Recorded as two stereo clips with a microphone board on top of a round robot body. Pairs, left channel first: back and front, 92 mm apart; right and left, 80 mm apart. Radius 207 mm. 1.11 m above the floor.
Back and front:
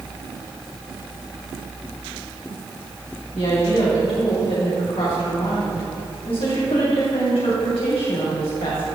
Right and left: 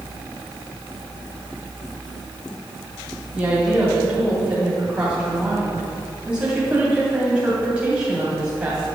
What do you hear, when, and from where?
3.3 s a woman speaking: 160° left, 2.5 m